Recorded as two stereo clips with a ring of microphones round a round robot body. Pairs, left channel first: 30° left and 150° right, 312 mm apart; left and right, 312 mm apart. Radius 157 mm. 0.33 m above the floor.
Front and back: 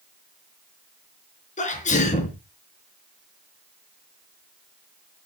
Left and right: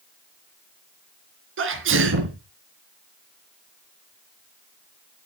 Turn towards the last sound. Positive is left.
turn(degrees=-40)